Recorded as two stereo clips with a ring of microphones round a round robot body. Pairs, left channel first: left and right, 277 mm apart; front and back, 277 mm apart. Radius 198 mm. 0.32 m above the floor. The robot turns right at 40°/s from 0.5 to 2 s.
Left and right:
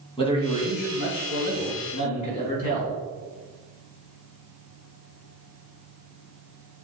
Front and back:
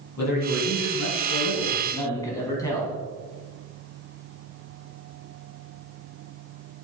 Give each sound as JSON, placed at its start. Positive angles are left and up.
{"t": 0.2, "sound": "a man speaking", "azimuth_deg": 20, "distance_m": 3.5}